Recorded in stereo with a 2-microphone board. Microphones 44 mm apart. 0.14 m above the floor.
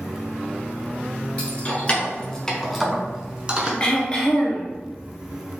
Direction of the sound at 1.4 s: 30° left (ahead or behind).